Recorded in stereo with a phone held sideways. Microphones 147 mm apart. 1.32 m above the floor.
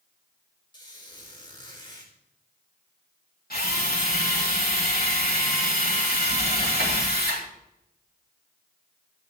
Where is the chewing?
I don't hear chewing.